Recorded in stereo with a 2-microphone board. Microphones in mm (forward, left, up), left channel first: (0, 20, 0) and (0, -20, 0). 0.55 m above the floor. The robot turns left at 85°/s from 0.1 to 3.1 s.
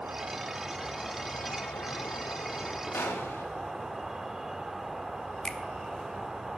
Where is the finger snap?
20° left (ahead or behind), 1.1 m.